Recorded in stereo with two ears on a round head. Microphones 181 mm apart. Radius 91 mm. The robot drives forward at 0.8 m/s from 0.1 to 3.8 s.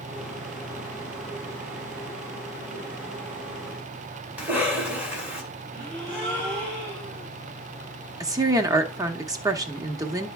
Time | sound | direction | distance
4.4 | a cough | 5° right (ahead or behind) | 3.5 m
5.7 | a gasp | 15° right (ahead or behind) | 5.5 m
8.2 | a woman speaking | 15° right (ahead or behind) | 0.8 m